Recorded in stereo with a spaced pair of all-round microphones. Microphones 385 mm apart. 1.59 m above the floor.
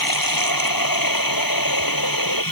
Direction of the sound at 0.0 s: 60° left (ahead or behind).